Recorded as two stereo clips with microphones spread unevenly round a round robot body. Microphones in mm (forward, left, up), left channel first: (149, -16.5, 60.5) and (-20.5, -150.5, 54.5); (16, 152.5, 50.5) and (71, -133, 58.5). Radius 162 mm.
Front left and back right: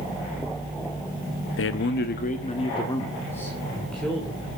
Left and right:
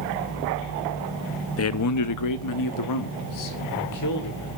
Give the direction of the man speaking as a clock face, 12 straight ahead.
10 o'clock.